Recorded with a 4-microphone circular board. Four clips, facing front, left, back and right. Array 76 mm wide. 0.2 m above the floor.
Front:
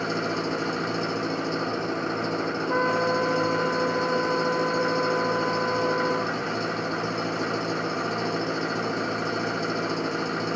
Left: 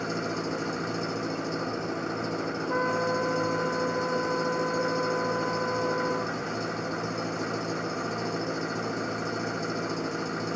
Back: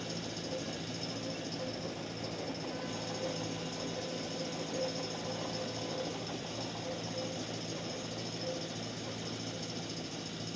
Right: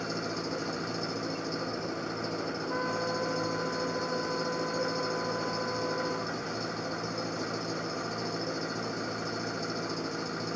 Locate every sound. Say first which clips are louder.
0.0 s an engine running: left 4 dB, front 14 dB; 10° left
2.7 s a trumpet: left 6 dB, front 17 dB; 15° left